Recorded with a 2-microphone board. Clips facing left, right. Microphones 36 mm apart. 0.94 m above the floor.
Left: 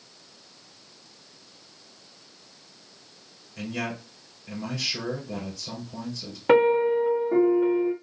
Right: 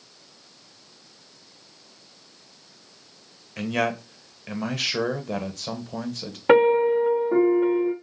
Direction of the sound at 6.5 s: 15° right (ahead or behind).